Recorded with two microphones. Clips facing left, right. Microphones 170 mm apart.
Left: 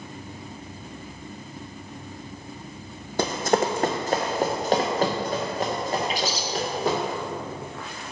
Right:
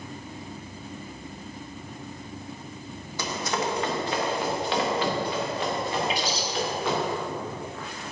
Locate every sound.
3.2 s running footsteps: 60° left (ahead or behind), 0.6 m; by 7.0 s 40° left (ahead or behind), 2.5 m
6.1 s a bird: 50° left (ahead or behind), 0.8 m